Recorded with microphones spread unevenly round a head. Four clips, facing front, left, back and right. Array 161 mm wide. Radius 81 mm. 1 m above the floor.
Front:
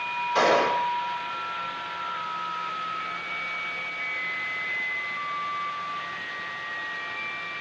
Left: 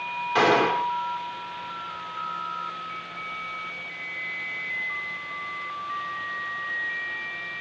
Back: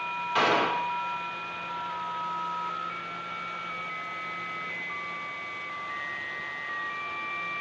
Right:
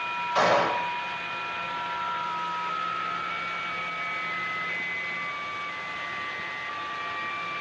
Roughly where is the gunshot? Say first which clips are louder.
Left 2 dB, front 4 dB; left.